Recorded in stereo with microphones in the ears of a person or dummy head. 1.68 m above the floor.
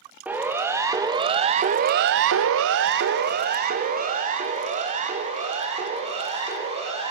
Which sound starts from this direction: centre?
A siren, at 0.2 s.